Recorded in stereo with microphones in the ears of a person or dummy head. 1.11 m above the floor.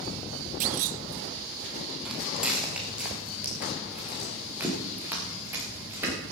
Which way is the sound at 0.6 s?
40° right (ahead or behind).